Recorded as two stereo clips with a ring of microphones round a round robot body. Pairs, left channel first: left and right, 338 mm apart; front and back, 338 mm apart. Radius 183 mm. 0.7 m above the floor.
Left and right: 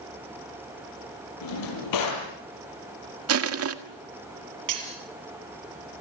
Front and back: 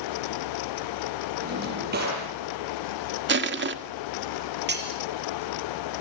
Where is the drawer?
115° left, 7.5 m.